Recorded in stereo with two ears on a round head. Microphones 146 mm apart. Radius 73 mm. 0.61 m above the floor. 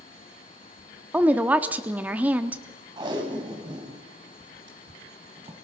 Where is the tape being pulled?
30° right (ahead or behind), 3.5 m.